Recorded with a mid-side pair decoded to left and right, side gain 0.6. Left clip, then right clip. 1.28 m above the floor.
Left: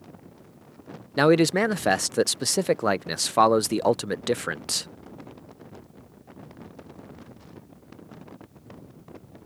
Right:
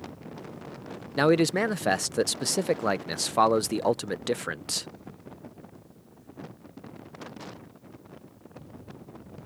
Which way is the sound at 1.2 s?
15° left.